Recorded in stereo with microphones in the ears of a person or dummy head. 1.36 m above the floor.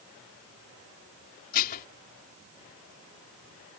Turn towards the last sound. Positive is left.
turn(degrees=50)  # may be behind; listen again after turning